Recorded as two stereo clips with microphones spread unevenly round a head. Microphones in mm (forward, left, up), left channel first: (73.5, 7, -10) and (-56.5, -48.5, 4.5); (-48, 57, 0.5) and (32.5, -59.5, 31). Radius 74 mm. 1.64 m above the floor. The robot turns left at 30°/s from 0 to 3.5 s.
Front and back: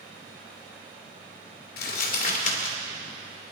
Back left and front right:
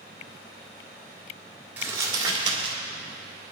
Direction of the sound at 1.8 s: 20° left.